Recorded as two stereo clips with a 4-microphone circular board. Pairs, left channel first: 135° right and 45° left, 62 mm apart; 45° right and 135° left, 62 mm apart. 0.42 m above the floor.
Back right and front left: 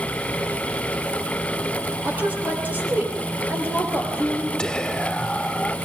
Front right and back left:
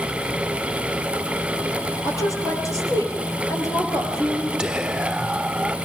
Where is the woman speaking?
15° right, 9 m; by 4.5 s 5° right, 9 m.